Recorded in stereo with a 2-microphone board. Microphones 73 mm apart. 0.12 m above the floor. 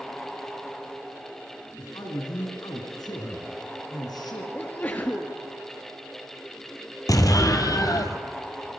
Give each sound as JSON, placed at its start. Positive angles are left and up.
{"t": 1.8, "sound": "a man speaking", "side_deg": 65, "distance_m": 6.0}
{"t": 4.5, "sound": "a sneeze", "side_deg": 30, "distance_m": 2.0}
{"t": 7.1, "sound": "an explosion", "side_deg": 55, "distance_m": 1.9}